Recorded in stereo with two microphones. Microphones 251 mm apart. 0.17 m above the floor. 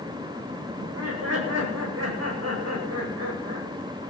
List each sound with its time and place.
0.8 s laughter: 80° right, 9.5 m